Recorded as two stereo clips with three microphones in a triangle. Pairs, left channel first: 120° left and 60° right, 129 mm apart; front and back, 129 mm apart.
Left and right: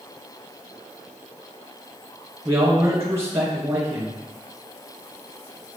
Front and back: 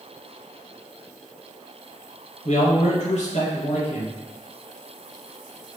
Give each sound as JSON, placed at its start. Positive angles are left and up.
{"t": 2.5, "sound": "a man speaking", "azimuth_deg": 10, "distance_m": 2.5}